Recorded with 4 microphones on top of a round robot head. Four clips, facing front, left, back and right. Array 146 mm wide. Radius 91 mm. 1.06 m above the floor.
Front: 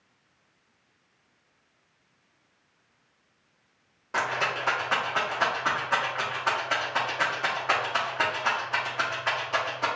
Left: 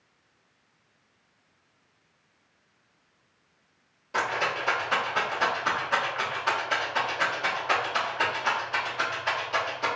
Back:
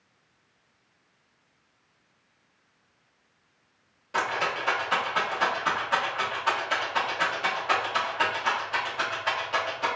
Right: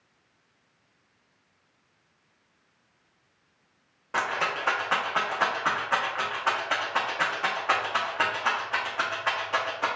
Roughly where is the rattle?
Ahead right.